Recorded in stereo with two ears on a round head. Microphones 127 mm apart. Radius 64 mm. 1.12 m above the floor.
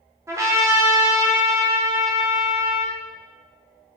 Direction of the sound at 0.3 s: 20° right (ahead or behind).